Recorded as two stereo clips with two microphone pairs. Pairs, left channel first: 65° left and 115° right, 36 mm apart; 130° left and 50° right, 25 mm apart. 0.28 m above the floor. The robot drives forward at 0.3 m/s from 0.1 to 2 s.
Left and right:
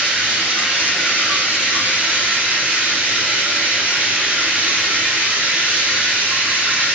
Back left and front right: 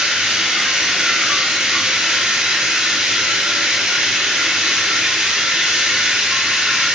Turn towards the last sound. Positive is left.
turn(degrees=-60)